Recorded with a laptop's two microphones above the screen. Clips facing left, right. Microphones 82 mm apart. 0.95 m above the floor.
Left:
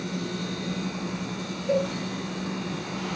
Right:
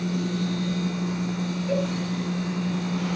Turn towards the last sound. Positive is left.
turn(degrees=10)  # may be behind; listen again after turning